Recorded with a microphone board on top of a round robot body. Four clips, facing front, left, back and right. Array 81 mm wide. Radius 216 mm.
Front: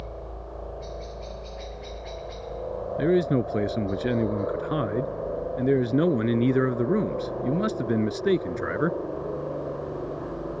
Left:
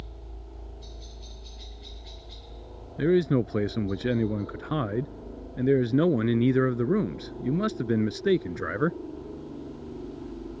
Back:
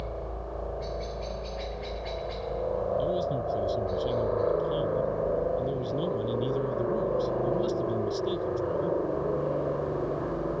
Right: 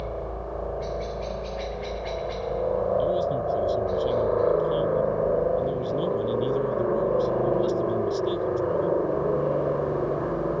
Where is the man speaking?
40° left.